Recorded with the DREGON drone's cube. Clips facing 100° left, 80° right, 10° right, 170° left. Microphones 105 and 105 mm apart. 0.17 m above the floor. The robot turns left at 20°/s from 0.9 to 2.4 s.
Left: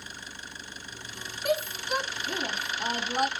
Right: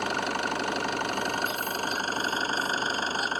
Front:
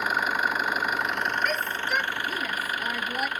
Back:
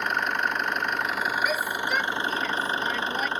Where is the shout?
85° left; by 3.3 s 70° left.